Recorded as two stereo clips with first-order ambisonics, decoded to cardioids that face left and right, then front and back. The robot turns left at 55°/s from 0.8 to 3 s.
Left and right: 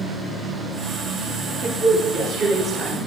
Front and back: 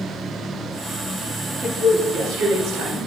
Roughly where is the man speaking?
Right.